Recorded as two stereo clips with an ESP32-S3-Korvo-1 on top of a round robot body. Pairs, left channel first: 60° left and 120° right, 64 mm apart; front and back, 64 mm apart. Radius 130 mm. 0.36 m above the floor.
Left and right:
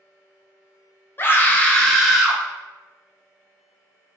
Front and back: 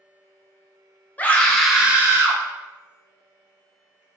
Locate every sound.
1.2 s a scream: 40° left, 0.9 m; by 2.4 s 160° left, 1.0 m